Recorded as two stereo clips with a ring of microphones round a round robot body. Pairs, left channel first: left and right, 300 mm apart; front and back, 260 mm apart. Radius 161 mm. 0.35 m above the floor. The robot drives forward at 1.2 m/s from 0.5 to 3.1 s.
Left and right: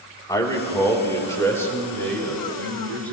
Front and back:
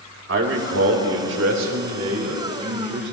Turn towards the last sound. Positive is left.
turn(degrees=175)